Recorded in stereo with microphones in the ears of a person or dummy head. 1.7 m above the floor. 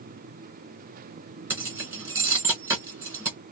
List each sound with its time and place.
1.5 s keys jangling: 10° right (ahead or behind), 1.3 m